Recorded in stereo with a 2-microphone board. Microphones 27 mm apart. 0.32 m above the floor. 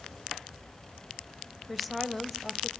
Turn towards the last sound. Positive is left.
turn(degrees=0)  # may be behind; listen again after turning